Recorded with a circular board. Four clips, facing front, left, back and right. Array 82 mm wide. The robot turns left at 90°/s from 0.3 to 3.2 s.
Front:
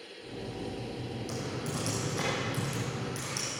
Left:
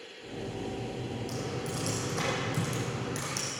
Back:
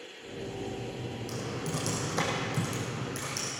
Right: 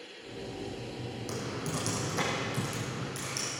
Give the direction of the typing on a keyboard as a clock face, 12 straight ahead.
3 o'clock.